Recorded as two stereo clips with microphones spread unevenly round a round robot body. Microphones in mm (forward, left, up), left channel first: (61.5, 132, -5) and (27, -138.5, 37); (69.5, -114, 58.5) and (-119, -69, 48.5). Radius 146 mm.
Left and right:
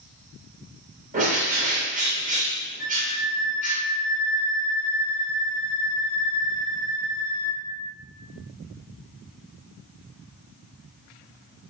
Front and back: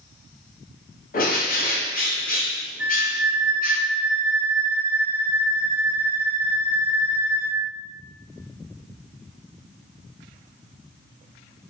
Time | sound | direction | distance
1.1 | a bird | 35° right | 0.6 m
2.8 | a flute | 130° right | 1.1 m